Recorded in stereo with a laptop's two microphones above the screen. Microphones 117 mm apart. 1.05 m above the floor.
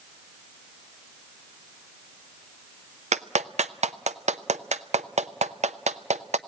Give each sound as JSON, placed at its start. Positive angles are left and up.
{"t": 3.1, "sound": "a clap", "side_deg": -75, "distance_m": 0.5}